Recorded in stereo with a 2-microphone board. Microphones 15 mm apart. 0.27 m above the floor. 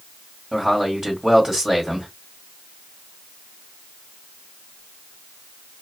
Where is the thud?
I don't hear a thud.